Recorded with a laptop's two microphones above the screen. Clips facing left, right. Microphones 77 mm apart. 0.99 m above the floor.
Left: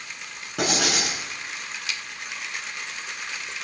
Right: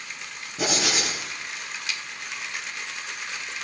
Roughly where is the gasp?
I don't hear a gasp.